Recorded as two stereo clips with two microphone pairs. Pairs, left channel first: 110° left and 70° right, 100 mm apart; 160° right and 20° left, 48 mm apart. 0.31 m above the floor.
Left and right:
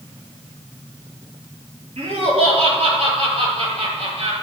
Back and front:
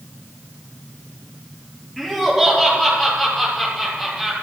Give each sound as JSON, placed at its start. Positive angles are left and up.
{"t": 2.0, "sound": "laughter", "azimuth_deg": -75, "distance_m": 7.5}